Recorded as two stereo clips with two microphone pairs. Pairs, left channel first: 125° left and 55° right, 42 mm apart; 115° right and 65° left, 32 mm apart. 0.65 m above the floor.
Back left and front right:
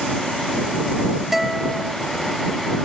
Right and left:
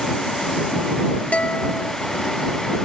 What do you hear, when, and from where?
1.3 s a guitar: 135° right